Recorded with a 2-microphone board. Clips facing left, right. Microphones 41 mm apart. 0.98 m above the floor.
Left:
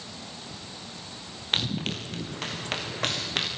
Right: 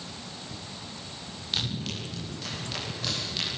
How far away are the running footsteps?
About 5.5 m.